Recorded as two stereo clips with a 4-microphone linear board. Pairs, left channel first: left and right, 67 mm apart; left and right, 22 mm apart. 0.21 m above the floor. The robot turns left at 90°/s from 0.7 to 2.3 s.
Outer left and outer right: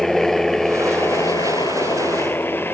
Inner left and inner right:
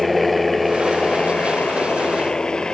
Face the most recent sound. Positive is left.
turn(degrees=30)  # may be behind; listen again after turning